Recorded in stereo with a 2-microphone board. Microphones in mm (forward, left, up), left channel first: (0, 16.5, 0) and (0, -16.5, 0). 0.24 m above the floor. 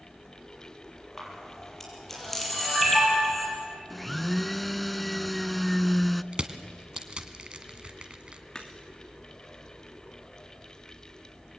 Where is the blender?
5° left (ahead or behind), 0.5 m.